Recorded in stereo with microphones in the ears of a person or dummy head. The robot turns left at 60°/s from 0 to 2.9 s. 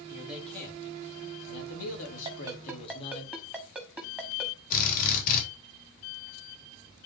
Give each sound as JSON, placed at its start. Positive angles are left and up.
{"t": 0.1, "sound": "a man speaking", "azimuth_deg": -165, "distance_m": 2.5}
{"t": 2.2, "sound": "a ringtone", "side_deg": -25, "distance_m": 1.2}
{"t": 4.7, "sound": "a drill", "side_deg": 50, "distance_m": 3.5}